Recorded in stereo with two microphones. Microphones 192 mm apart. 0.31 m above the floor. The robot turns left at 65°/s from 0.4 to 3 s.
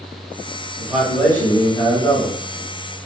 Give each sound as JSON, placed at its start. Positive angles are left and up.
{"t": 0.8, "sound": "a man speaking", "azimuth_deg": -165, "distance_m": 1.1}